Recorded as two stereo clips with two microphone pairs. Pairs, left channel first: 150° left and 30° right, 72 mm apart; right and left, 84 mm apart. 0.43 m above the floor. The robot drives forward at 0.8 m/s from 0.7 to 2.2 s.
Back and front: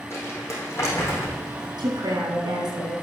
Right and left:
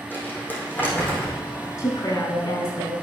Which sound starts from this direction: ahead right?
A woman speaking, at 1.8 s.